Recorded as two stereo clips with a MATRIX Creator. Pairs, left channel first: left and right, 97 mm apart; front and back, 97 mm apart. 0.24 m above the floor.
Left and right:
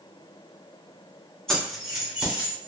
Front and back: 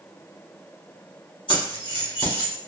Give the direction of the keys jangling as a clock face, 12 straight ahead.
12 o'clock.